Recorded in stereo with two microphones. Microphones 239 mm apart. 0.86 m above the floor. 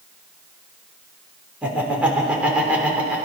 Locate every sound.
1.6 s laughter: 5° right (ahead or behind), 3 m